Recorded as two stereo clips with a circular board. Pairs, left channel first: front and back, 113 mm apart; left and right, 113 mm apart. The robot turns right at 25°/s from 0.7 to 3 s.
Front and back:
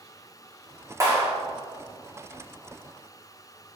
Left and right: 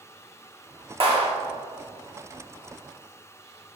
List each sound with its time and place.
1.0 s a clap: 120° right, 1.6 m; by 1.3 s 115° right, 1.6 m